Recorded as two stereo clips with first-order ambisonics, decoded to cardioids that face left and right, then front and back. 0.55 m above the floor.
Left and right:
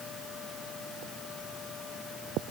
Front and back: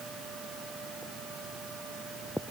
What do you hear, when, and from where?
Only background noise.